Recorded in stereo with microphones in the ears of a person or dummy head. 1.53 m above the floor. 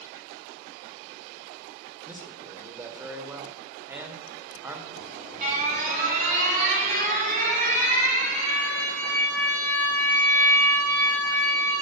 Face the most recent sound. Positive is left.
turn(degrees=-45)  # may be behind; listen again after turning